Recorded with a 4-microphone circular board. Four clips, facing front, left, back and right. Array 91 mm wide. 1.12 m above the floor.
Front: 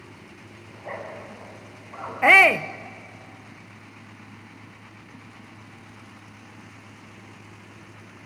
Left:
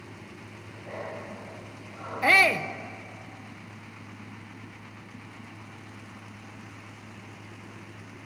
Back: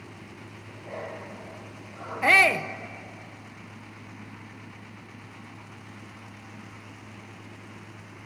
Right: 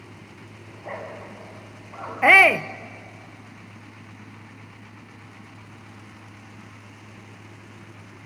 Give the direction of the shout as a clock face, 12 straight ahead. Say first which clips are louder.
Right 6 dB, front 5 dB; 2 o'clock.